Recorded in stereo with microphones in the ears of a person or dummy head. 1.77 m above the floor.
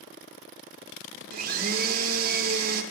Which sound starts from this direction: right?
A blender, at 1.3 s.